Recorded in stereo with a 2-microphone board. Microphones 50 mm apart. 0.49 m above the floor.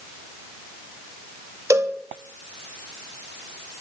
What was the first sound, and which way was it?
A cowbell, 70° right (ahead or behind).